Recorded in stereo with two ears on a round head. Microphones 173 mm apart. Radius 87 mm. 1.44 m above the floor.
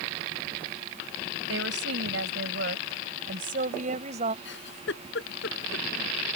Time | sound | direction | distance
1.5 | a woman speaking | 70° right (ahead or behind) | ?
4.5 | a giggle | 65° left (ahead or behind) | ?